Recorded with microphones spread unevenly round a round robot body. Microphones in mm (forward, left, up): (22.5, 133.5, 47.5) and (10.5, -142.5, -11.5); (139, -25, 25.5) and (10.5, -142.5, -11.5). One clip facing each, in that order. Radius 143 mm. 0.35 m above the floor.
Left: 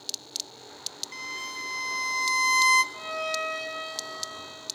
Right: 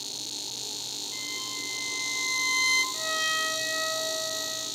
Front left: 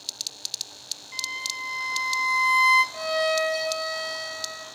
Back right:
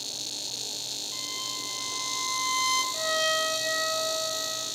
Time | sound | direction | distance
1.1 | a violin | 135° left | 1.4 m
2.9 | a violin | 45° right | 4 m